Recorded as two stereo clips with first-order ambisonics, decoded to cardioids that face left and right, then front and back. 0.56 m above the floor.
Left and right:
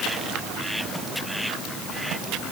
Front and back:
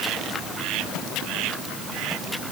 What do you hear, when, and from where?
Only background noise.